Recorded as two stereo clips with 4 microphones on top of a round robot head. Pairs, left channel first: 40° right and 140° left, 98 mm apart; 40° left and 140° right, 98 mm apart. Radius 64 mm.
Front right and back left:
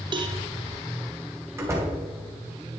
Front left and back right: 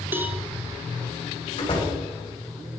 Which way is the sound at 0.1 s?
155° left.